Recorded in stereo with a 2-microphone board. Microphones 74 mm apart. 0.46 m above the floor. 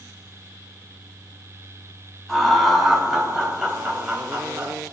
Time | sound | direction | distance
2.3 | laughter | 5° left (ahead or behind) | 2.5 m